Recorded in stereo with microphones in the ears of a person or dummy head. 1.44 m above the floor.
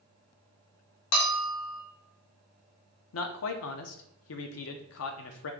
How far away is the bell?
About 1.1 m.